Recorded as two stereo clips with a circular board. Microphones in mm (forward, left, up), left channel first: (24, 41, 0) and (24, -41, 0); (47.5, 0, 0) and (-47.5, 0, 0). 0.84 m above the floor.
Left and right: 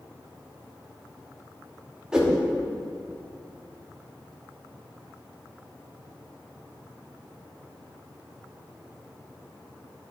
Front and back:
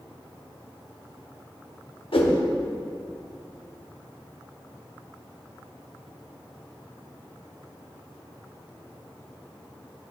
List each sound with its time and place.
2.1 s a whoosh: 10° right, 1.0 m